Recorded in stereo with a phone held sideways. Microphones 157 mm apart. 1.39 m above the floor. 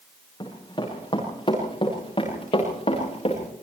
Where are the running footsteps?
30° left (ahead or behind), 8.5 m; by 3.4 s 40° left (ahead or behind), 8.5 m.